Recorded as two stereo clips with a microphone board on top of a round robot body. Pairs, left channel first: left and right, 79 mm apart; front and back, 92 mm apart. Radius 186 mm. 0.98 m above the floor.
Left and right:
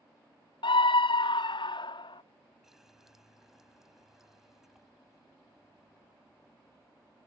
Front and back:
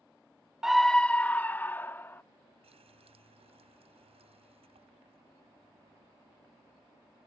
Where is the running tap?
175° right.